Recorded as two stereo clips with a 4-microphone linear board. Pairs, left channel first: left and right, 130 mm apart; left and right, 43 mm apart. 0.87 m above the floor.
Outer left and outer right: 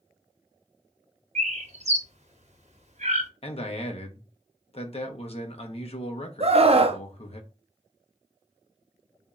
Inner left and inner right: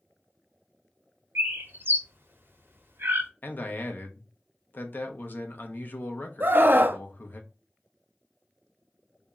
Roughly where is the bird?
Right.